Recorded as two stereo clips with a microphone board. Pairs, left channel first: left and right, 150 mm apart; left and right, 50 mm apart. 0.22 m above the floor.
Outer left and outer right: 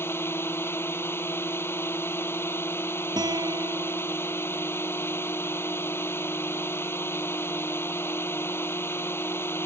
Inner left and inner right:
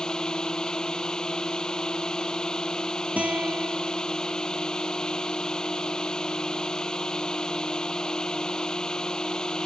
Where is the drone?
15° left (ahead or behind).